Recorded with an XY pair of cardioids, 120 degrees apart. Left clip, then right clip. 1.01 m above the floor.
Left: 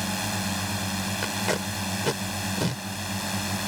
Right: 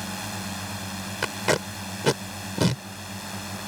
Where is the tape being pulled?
30° right.